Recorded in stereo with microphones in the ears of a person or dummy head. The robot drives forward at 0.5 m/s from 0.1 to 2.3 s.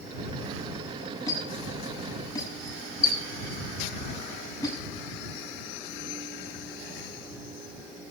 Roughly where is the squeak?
Centre.